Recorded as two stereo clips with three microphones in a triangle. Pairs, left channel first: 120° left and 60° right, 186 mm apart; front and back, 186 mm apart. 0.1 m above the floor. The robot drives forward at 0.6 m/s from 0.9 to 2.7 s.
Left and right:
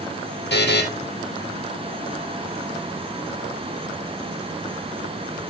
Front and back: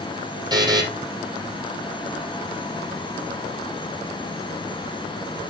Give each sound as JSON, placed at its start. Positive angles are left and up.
{"t": 0.5, "sound": "a buzzer", "azimuth_deg": 115, "distance_m": 3.5}